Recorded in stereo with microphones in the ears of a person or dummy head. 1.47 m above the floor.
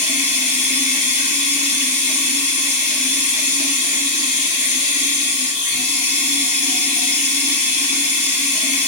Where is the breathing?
I don't hear breathing.